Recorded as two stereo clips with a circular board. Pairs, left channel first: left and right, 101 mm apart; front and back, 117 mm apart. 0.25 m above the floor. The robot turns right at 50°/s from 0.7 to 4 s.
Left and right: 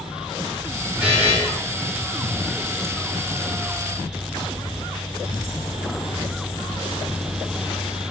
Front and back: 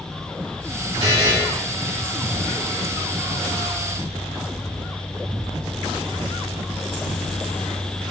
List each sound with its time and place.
1.0 s a buzzer: 165° right, 1.0 m; by 1.3 s 145° right, 1.0 m